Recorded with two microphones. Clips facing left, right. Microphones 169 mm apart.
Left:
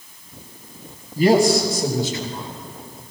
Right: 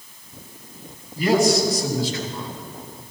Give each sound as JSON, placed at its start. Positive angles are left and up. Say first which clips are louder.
{"t": 1.2, "sound": "a man speaking", "louder": "left 3 dB", "side_deg": 35, "distance_m": 4.5}